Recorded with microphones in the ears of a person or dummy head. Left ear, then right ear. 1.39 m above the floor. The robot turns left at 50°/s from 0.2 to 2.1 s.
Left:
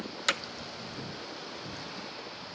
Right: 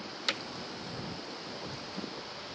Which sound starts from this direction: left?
Hammering, at 0.3 s.